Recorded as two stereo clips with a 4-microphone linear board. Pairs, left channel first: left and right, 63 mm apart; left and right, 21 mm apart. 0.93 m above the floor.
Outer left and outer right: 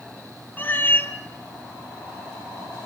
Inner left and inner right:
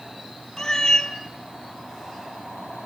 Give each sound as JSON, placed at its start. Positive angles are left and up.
{"t": 0.6, "sound": "a cat meowing", "side_deg": 30, "distance_m": 1.7}